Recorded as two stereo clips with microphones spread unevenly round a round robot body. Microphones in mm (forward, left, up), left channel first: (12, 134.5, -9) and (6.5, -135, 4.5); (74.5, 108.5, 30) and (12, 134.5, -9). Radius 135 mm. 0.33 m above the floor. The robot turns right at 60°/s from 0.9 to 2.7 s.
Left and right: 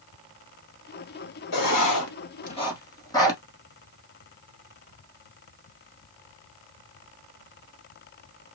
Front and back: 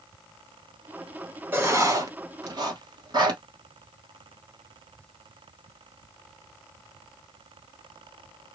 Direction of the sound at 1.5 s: 95° left.